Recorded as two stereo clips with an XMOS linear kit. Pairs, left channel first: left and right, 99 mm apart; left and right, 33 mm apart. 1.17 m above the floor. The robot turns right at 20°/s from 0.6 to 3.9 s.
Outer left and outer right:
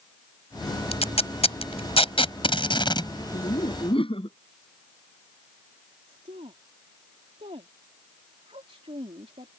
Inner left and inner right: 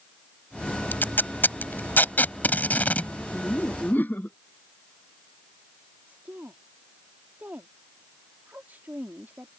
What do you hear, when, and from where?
0.9 s tape being pulled: 80° left; by 3.1 s 45° left (ahead or behind)
3.3 s laughter: 70° left (ahead or behind); by 4.4 s 60° left (ahead or behind)
6.1 s a woman speaking: 80° right